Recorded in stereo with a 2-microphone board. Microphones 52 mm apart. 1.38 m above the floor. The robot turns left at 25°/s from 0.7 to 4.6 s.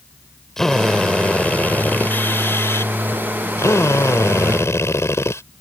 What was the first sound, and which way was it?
A drill, 170° left.